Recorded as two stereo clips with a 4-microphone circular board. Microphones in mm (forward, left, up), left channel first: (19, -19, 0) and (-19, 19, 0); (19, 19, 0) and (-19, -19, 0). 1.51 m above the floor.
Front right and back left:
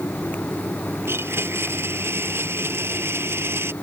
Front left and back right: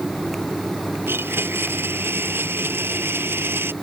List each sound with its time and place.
1.1 s a blender: straight behind